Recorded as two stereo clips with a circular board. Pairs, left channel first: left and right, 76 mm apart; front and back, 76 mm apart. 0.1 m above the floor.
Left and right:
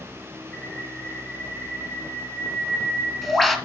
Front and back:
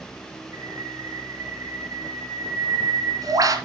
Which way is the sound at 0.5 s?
175° left.